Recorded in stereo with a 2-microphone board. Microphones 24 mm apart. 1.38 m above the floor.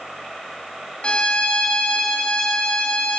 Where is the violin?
45° left (ahead or behind), 3 m.